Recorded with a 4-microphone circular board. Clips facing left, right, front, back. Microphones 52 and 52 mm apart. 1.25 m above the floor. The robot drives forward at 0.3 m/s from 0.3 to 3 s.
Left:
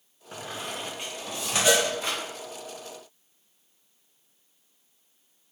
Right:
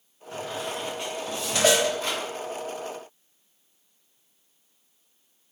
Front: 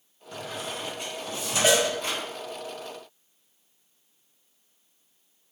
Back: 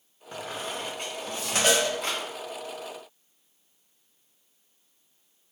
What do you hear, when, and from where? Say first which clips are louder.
0.3 s a squeak: right 4 dB, back 1 dB; 145° left, 0.6 m; by 2.2 s 165° left, 1.0 m
1.6 s a cowbell: right 2 dB, front 2 dB; 80° right, 0.6 m; by 1.9 s 85° right, 0.6 m